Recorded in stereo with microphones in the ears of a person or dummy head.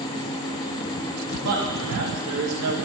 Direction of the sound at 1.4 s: 80° right.